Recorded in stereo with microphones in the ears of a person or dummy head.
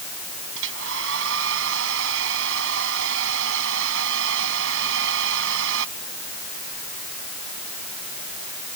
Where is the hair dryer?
70° right (ahead or behind).